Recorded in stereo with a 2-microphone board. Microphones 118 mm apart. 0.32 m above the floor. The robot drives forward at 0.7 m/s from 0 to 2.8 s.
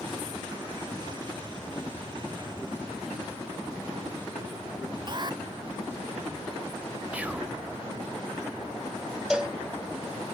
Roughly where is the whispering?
Centre.